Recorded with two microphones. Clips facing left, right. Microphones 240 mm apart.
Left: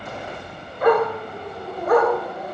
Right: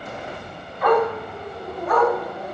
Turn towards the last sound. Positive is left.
turn(degrees=55)  # may be behind; listen again after turning